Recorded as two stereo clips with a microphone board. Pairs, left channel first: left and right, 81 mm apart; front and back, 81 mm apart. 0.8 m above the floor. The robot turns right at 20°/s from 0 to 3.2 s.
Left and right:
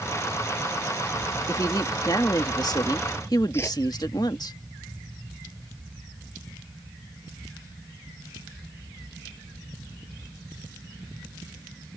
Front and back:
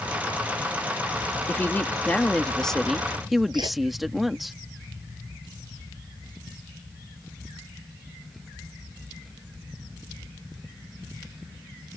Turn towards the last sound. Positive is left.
turn(degrees=150)